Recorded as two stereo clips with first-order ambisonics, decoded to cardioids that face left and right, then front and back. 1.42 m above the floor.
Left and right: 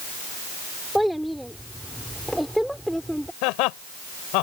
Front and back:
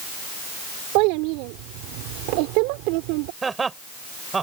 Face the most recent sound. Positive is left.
turn(degrees=105)